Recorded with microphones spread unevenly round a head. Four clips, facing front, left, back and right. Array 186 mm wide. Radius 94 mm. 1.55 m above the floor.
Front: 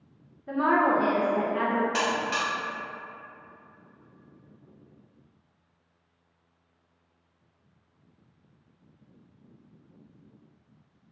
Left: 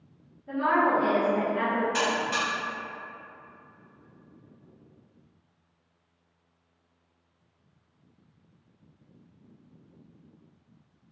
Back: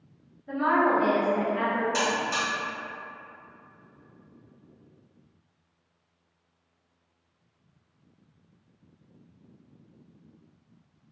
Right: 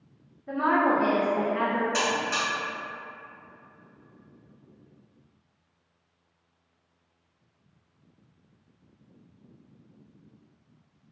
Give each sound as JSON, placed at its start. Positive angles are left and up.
{"t": 0.5, "sound": "a woman speaking", "azimuth_deg": -30, "distance_m": 0.6}
{"t": 1.9, "sound": "a buzzer", "azimuth_deg": -50, "distance_m": 1.6}